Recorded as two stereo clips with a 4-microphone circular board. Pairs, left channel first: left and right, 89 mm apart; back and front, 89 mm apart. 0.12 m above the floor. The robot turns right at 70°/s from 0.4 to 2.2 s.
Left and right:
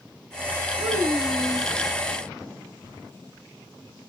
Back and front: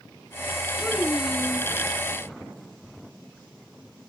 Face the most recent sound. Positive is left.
turn(degrees=5)